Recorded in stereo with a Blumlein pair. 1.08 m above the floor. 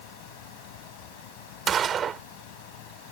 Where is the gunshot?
25° right.